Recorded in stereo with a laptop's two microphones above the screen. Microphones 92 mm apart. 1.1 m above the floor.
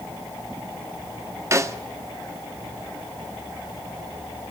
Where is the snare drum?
30° right (ahead or behind), 0.6 m.